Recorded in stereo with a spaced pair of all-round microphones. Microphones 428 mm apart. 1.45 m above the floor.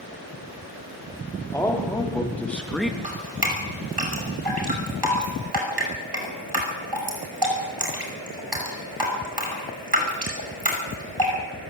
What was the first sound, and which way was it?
A man speaking, 5° left (ahead or behind).